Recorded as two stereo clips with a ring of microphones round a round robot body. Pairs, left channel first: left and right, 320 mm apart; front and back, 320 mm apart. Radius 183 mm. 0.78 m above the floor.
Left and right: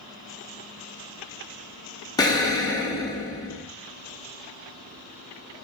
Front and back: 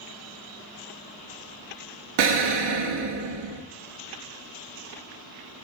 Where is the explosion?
170° left, 0.7 m.